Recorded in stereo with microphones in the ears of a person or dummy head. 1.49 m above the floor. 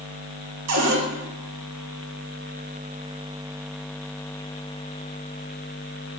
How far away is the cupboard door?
About 0.8 m.